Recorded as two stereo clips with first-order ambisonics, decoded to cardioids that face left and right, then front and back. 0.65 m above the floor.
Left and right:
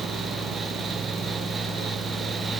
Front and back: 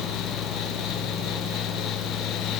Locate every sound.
Only background noise.